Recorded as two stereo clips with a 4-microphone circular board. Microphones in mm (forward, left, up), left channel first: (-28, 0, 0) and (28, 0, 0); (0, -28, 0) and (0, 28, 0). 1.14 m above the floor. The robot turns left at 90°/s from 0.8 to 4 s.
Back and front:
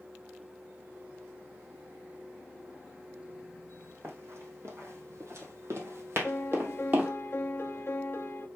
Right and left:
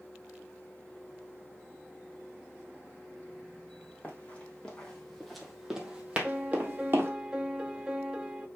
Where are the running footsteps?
30° right, 2.5 m; by 7.1 s 55° left, 2 m.